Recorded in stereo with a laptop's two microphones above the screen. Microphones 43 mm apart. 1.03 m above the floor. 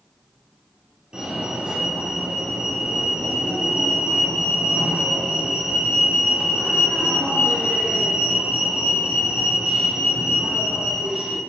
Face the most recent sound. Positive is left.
turn(degrees=-20)  # may be behind; listen again after turning